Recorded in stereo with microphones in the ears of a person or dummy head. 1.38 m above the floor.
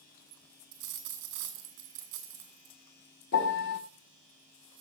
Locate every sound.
0.7 s a dropped coin: 65° right (ahead or behind), 2 m
3.3 s a piano: 60° left (ahead or behind), 1.5 m